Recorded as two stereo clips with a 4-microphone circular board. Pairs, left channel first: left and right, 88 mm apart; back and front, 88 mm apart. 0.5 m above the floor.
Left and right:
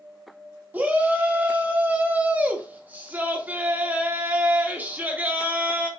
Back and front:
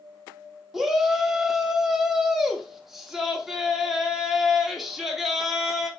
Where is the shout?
80° right, 1.0 m.